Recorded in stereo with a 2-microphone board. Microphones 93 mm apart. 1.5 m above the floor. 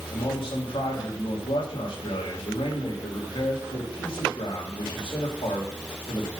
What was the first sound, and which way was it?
A man speaking, 80° left.